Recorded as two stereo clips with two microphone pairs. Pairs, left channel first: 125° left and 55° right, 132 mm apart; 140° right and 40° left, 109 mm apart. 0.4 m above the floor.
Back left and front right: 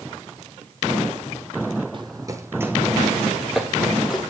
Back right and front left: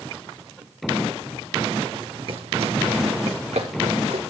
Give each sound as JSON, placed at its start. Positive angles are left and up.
{"t": 1.9, "sound": "running footsteps", "azimuth_deg": -5, "distance_m": 0.9}